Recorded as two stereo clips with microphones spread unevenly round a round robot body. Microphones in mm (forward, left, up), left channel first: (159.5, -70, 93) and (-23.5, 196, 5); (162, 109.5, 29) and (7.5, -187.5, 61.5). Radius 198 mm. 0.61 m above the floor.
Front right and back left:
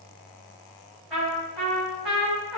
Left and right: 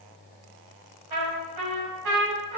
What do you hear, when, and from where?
1.1 s a trumpet: 150° right, 4.5 m